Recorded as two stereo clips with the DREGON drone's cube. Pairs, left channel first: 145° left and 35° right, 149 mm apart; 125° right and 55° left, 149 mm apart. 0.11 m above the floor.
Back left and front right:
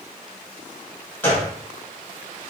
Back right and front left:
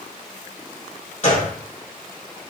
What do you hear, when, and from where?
1.2 s a gunshot: 140° right, 2.5 m